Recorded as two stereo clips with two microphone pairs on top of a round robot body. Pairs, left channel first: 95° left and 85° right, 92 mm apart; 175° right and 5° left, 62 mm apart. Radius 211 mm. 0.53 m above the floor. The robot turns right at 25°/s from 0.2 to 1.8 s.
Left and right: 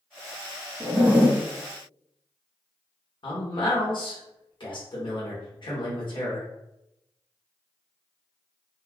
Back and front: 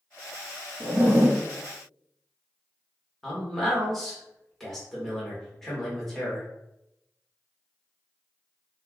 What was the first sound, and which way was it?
A zipper, 25° right.